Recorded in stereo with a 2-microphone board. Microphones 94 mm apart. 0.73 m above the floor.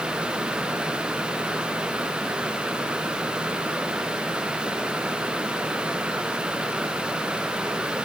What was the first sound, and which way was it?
Only background noise.